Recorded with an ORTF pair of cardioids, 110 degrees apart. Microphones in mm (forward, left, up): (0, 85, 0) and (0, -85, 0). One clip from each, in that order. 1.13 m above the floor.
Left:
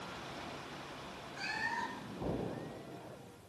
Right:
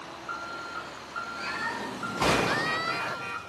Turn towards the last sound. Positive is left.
turn(degrees=-20)